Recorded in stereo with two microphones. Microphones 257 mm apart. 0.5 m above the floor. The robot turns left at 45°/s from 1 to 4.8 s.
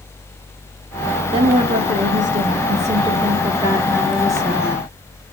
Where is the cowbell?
No cowbell in this recording.